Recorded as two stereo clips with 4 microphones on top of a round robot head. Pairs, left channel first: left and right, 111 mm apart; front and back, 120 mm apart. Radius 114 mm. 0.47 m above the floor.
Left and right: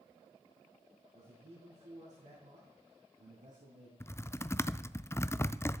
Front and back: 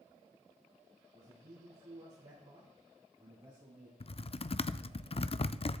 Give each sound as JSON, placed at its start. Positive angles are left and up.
{"t": 1.1, "sound": "a man speaking", "azimuth_deg": -125, "distance_m": 6.5}
{"t": 4.0, "sound": "typing on a keyboard", "azimuth_deg": 25, "distance_m": 0.5}